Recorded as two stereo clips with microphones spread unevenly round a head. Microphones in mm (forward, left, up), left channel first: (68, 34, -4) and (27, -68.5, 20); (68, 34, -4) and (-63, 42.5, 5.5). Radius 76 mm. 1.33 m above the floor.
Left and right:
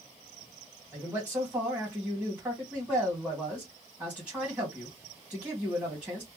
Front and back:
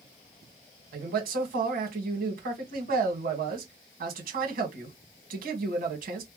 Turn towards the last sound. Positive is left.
turn(degrees=165)